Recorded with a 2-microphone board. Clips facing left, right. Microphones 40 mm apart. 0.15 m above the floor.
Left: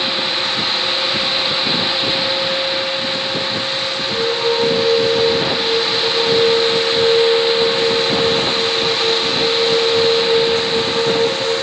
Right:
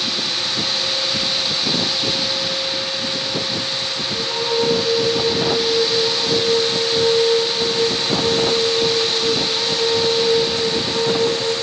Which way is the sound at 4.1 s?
30° left (ahead or behind).